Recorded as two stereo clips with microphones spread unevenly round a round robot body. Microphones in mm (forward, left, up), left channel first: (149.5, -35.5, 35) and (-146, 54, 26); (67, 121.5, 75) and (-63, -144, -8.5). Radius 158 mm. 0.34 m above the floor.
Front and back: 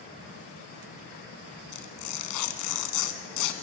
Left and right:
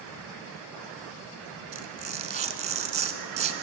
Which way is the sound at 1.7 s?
50° right.